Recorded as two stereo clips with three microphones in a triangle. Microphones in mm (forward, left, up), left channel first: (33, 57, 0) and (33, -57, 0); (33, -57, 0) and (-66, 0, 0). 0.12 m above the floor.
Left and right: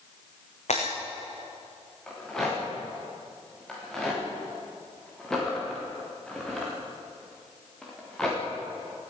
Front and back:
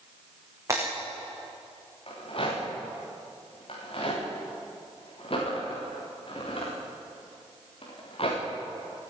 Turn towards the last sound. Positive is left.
turn(degrees=5)